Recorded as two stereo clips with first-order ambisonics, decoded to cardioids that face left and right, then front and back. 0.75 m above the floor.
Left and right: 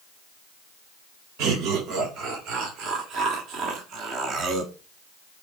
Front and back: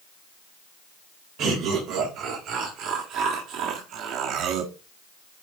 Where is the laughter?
135° right, 3 m; by 4.7 s 145° right, 1.2 m.